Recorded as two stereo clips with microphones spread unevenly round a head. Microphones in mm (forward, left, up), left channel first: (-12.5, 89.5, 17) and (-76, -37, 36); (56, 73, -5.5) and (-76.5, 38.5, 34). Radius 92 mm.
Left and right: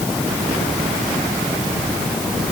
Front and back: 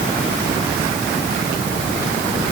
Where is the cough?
I don't hear a cough.